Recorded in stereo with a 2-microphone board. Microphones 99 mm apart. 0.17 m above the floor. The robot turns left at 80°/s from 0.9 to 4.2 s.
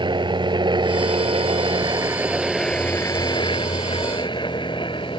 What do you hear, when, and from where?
0.0 s a helicopter: 55° right (ahead or behind); by 5.2 s 55° left (ahead or behind)